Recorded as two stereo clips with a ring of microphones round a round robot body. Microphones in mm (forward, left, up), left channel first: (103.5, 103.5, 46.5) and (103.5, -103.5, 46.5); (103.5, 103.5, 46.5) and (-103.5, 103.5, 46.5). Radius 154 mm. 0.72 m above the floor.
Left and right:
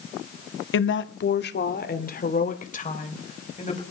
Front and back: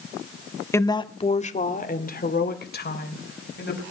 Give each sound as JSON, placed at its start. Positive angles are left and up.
{"t": 0.7, "sound": "a woman speaking", "azimuth_deg": 80, "distance_m": 1.4}